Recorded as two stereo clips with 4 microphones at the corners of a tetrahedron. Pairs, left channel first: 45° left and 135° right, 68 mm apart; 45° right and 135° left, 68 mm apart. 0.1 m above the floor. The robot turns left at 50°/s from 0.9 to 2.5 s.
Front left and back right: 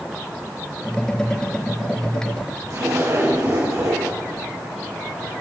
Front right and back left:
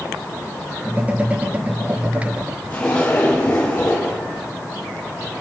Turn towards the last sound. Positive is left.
turn(degrees=-110)